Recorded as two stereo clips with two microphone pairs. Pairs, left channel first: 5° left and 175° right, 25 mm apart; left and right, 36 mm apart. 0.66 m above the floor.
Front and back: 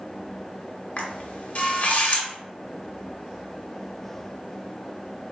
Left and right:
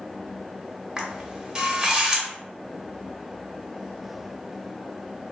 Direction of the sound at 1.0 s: 25° right.